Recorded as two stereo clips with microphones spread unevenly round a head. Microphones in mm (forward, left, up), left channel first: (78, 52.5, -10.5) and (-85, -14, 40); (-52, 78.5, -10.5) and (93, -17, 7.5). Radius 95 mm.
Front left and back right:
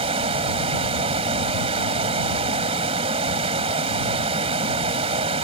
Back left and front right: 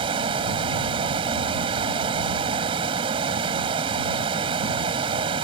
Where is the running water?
100° right.